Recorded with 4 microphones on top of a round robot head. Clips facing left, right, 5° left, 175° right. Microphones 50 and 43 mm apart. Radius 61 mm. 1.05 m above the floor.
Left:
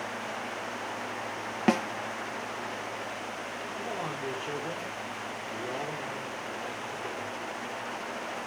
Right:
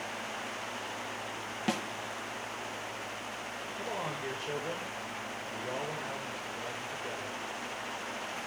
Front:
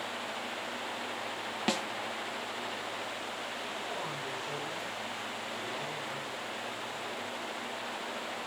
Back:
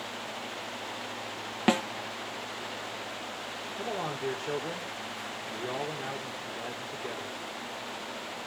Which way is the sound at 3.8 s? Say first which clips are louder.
Left 1 dB, back 4 dB; 155° left.